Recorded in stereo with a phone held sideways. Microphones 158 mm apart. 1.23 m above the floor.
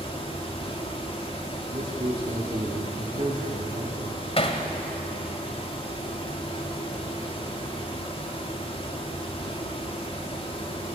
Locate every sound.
0.0 s a fan: 35° left (ahead or behind), 3 m
1.7 s a man speaking: 40° right (ahead or behind), 2.5 m
4.4 s hammering: 40° left (ahead or behind), 2 m